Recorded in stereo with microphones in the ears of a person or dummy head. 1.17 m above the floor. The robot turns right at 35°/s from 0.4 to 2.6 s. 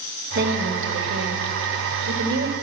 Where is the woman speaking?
125° right, 2 m; by 2.5 s 55° right, 2 m.